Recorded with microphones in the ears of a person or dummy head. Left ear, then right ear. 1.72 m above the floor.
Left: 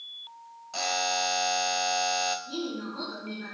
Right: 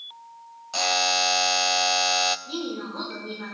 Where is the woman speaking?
40° right (ahead or behind), 6 m.